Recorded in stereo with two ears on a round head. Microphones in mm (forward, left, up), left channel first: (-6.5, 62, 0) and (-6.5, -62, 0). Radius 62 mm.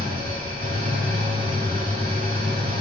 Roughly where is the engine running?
Right.